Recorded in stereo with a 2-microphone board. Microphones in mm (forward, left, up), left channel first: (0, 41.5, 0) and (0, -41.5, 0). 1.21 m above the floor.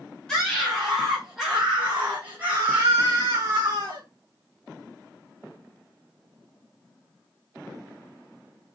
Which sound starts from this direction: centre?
A scream, at 0.3 s.